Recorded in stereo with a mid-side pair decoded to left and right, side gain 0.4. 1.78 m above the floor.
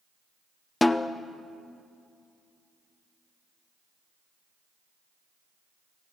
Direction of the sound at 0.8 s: 15° left.